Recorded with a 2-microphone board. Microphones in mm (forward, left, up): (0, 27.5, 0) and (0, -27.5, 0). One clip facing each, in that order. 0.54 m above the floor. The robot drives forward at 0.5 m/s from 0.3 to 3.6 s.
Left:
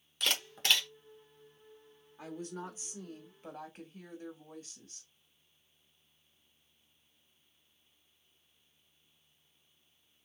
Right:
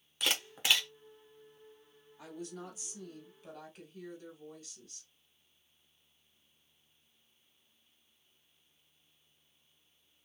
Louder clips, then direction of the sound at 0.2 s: Even; 10° right (ahead or behind).